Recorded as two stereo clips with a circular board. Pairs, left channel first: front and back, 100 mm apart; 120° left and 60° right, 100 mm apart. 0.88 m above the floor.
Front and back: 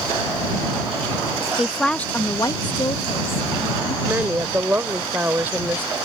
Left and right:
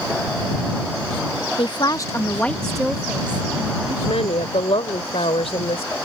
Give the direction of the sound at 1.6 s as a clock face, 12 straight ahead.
9 o'clock.